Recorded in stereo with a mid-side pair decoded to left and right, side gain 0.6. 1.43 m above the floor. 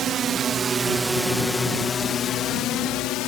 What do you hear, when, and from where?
0.0 s a drone: 50° right; by 3.3 s 70° left